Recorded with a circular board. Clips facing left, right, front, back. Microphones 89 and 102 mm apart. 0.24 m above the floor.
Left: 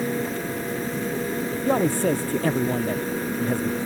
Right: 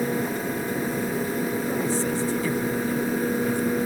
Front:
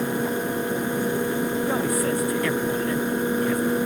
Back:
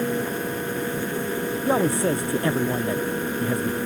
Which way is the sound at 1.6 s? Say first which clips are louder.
Left 4 dB, back 2 dB; 120° left.